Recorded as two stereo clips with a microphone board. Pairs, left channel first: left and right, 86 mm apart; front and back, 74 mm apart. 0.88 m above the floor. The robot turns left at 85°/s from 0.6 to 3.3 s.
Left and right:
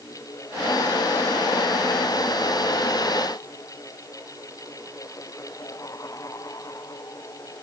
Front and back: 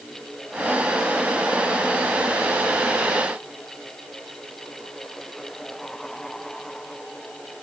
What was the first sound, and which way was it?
Only background noise.